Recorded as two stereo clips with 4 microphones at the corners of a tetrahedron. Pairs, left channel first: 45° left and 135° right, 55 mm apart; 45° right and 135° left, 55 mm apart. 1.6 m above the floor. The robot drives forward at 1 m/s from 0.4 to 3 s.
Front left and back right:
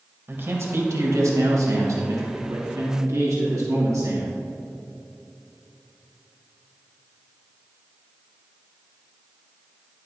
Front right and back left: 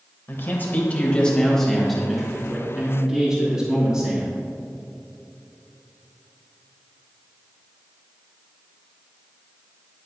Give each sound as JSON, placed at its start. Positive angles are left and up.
{"t": 0.3, "sound": "a man speaking", "azimuth_deg": -90, "distance_m": 1.7}